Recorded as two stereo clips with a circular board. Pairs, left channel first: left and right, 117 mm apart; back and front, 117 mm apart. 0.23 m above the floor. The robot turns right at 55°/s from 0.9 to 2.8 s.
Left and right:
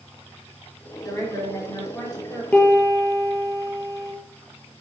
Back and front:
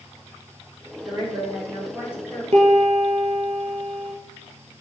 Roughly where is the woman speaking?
Ahead.